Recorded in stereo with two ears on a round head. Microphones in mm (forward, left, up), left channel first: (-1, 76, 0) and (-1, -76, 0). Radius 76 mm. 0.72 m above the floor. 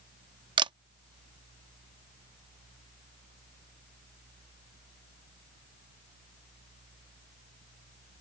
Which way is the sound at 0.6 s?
25° right (ahead or behind).